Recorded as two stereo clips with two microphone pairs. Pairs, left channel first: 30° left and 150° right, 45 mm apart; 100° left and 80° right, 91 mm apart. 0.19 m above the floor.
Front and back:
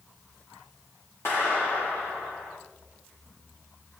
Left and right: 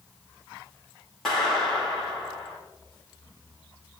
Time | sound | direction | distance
1.2 | a clap | 15° left | 7.5 m